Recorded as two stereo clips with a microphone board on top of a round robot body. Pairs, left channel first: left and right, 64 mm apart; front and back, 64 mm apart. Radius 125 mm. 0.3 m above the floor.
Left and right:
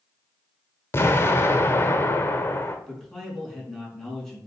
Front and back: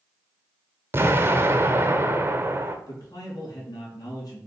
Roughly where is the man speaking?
Ahead.